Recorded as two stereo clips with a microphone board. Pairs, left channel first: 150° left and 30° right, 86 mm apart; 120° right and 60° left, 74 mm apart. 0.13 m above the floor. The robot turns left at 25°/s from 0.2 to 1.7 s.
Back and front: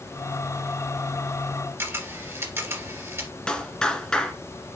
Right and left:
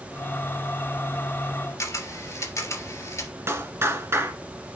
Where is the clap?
75° left, 1.7 m.